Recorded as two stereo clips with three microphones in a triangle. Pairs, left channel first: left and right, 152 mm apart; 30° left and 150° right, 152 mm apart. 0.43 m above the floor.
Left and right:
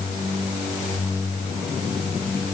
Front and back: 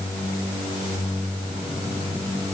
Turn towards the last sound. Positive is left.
No sound to turn to.